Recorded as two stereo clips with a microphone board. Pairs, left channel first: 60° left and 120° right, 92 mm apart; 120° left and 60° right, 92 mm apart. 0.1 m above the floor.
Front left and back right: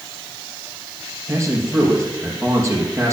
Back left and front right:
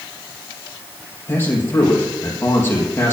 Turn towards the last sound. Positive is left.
turn(degrees=-175)